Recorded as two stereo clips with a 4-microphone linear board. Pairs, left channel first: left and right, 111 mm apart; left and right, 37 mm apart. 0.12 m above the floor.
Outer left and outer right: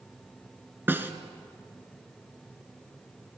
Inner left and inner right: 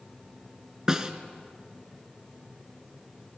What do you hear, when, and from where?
0.9 s a snare drum: 20° right (ahead or behind), 1.7 m